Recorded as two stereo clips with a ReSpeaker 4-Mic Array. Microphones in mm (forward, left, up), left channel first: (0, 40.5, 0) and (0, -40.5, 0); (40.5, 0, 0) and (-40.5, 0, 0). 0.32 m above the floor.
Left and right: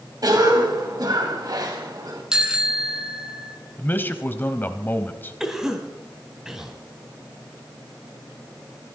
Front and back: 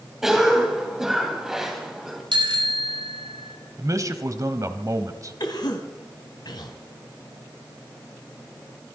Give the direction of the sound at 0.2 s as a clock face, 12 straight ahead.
3 o'clock.